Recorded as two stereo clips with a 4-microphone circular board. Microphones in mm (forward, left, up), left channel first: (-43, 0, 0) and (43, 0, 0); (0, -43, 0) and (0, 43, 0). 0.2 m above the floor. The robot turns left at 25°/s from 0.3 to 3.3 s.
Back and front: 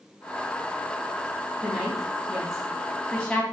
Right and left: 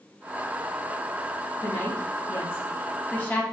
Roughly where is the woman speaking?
Right.